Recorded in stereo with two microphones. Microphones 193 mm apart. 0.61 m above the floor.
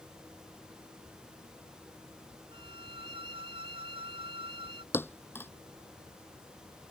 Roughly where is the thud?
Centre.